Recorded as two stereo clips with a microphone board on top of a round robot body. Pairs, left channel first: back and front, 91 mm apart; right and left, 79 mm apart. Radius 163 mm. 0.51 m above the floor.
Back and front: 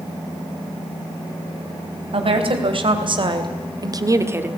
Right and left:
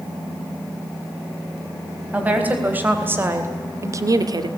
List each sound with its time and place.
2.1 s a woman speaking: 20° left, 4 m; by 4.5 s 70° left, 1.5 m